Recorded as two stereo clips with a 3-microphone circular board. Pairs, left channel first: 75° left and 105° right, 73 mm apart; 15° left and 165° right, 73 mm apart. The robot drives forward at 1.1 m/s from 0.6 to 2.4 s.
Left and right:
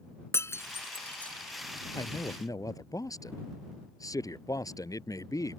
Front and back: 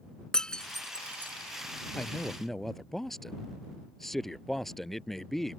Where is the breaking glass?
90° left; by 1.3 s 140° left.